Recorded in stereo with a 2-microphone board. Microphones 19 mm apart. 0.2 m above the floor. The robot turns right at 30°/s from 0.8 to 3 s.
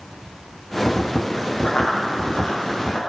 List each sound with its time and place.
1.6 s running footsteps: 65° left (ahead or behind), 4.5 m; by 3.0 s 45° left (ahead or behind), 4 m